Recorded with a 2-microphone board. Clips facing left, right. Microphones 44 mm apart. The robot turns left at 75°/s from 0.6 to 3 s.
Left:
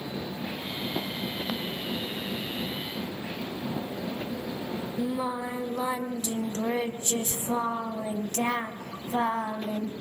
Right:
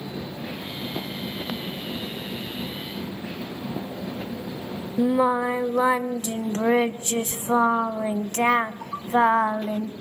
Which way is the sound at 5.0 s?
50° right (ahead or behind).